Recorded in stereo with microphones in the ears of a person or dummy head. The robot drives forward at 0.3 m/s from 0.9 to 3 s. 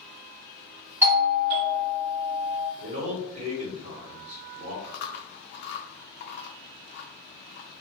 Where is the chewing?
55° left (ahead or behind), 0.5 m.